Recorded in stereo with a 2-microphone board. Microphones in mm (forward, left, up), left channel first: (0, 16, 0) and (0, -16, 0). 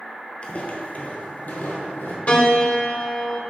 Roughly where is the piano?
Left.